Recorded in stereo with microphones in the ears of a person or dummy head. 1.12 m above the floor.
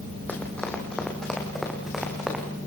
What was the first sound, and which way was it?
Running footsteps, 5° left (ahead or behind).